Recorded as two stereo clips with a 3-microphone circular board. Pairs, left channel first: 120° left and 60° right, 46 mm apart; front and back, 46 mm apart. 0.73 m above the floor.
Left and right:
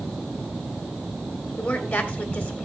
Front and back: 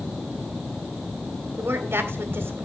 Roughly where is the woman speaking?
Behind.